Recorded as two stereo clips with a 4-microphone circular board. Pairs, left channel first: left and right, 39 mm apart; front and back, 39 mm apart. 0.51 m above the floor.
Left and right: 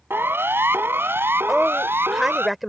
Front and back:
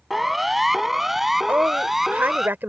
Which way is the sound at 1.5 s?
Straight behind.